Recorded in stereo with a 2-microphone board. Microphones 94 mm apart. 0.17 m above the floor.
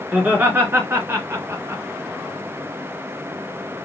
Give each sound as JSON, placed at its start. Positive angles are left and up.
{"t": 0.1, "sound": "laughter", "side_deg": -20, "distance_m": 2.0}